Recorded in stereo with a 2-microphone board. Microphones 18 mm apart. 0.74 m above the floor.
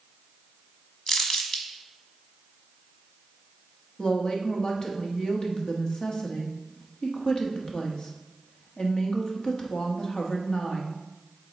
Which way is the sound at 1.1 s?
40° left (ahead or behind).